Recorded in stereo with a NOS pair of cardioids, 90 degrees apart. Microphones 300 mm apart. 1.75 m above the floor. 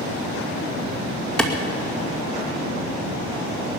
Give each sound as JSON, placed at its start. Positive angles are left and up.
{"t": 1.4, "sound": "a clap", "azimuth_deg": 5, "distance_m": 2.0}